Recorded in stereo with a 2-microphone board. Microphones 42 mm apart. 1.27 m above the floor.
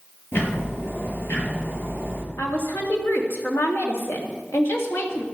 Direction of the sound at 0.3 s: 60° left (ahead or behind).